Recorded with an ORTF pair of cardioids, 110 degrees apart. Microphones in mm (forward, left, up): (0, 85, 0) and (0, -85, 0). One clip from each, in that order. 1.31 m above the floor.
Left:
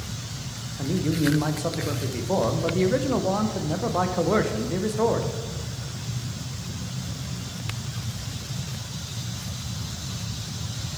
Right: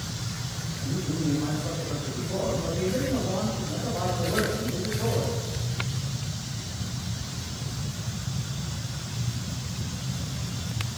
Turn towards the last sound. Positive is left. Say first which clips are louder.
# left 6 dB
turn(degrees=65)